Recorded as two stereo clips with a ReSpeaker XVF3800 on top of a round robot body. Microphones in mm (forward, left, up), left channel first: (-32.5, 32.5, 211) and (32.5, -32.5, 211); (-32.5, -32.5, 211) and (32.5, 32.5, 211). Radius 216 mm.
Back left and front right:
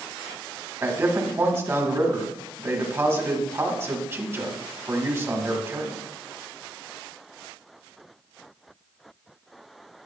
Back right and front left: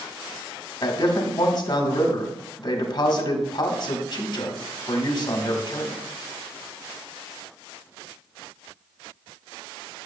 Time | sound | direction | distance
0.8 | a man speaking | 100° right | 1.9 m